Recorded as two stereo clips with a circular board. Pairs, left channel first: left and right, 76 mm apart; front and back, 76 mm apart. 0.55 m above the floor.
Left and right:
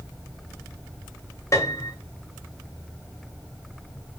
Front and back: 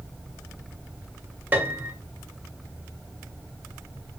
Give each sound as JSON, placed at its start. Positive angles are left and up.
{"t": 1.5, "sound": "a piano", "azimuth_deg": 120, "distance_m": 0.7}